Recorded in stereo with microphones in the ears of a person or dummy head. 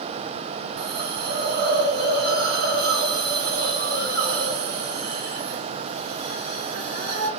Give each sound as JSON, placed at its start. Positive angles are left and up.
{"t": 0.8, "sound": "a hiss", "side_deg": -50, "distance_m": 0.6}